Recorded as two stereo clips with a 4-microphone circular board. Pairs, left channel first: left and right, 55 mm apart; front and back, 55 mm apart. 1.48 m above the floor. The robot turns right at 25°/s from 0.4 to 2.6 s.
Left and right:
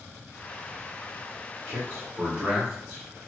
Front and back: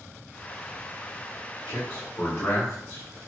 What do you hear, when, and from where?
1.7 s a man speaking: 35° right, 0.9 m; by 3.3 s 15° right, 0.9 m